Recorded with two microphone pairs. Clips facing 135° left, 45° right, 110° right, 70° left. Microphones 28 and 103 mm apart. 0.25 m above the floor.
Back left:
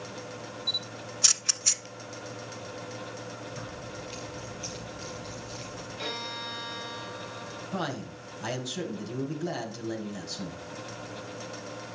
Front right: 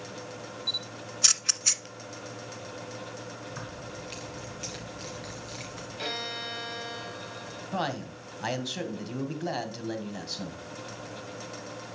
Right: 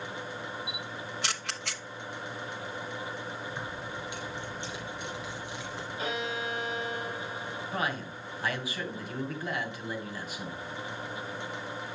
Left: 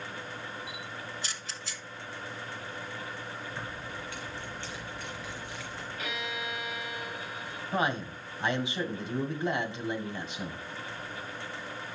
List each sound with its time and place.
0.7 s a camera shutter: 125° right, 0.8 m
3.5 s keys jangling: 40° right, 3.5 m
6.0 s a violin: 100° right, 1.7 m
7.7 s a man speaking: 15° left, 1.9 m